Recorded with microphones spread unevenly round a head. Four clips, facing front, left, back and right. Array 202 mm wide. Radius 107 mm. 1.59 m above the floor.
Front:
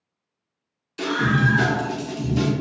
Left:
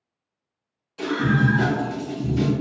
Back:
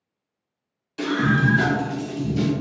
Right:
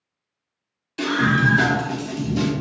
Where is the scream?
115° right, 1.8 m; by 2.5 s 50° right, 1.1 m.